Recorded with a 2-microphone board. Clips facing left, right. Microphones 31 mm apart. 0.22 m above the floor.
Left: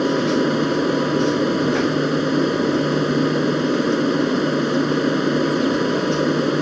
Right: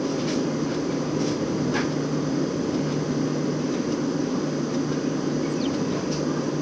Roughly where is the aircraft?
Left.